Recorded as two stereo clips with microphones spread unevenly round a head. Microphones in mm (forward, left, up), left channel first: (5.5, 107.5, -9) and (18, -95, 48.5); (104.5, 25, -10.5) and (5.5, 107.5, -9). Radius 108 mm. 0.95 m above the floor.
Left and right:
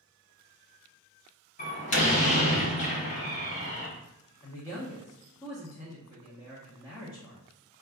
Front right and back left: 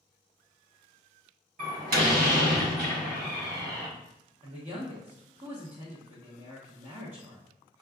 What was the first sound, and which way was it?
A door slam, 155° left.